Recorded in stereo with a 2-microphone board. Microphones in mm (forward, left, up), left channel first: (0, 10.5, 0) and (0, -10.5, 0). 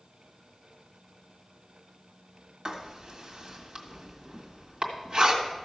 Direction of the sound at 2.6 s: 50° right (ahead or behind).